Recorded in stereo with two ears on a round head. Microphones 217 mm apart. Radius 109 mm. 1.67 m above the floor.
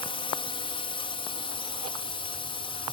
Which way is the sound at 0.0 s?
25° left (ahead or behind).